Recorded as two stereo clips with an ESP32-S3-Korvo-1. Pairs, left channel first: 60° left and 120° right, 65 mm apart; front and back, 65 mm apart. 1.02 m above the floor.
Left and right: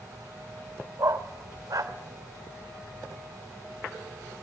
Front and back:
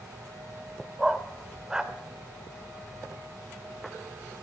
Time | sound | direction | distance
1.0 | a dog barking | 100° right | 1.2 m